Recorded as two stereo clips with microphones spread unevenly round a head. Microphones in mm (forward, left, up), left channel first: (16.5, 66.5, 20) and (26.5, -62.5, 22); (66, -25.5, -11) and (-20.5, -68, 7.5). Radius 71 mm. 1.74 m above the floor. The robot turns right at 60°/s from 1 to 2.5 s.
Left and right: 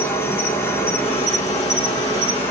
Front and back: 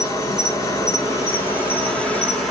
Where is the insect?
50° left, 1.0 m; by 2.5 s 140° left, 1.0 m.